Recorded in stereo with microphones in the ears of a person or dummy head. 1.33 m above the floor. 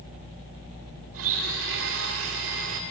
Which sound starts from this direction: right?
A blender, at 1.1 s.